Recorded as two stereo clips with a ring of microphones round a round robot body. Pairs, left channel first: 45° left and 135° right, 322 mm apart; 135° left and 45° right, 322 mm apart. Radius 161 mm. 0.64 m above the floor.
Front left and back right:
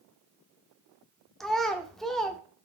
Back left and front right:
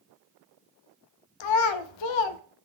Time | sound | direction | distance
1.4 | a child speaking | 135° left | 0.5 m